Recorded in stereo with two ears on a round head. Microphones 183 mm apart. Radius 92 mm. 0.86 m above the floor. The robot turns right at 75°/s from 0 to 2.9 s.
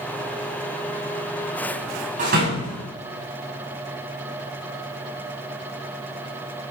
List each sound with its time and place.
2.2 s a door slam: 40° right (ahead or behind), 5.5 m; by 2.8 s 80° right, 5.5 m